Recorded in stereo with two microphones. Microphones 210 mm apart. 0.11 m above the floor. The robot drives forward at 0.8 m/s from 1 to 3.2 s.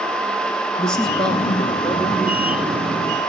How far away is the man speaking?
About 1.1 m.